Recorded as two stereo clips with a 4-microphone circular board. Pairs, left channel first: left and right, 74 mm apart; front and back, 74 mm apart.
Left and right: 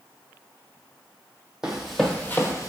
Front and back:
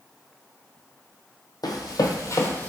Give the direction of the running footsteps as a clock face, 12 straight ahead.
12 o'clock.